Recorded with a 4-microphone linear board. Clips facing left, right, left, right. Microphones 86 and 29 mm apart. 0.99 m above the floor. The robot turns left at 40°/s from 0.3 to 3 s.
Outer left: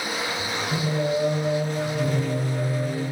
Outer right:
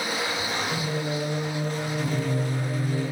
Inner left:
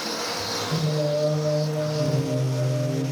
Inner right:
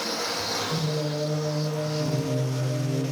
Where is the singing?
120° left, 1.9 m; by 3.0 s 30° left, 1.9 m.